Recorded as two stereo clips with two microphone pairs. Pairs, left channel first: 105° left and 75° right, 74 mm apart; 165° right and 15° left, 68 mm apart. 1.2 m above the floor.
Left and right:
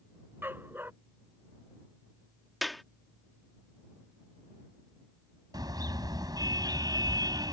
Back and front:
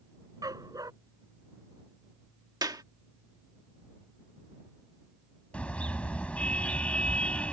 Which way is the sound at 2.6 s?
20° left.